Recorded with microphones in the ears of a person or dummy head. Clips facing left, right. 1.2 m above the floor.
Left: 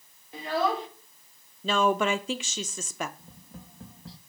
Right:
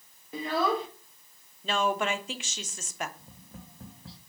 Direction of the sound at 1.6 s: 65° left (ahead or behind).